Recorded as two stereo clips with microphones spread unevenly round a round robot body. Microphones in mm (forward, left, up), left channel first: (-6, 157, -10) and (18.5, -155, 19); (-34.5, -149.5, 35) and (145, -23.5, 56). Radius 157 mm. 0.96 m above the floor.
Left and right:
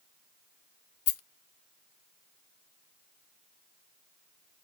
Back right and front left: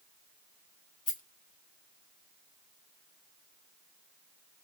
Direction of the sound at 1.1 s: 140° left.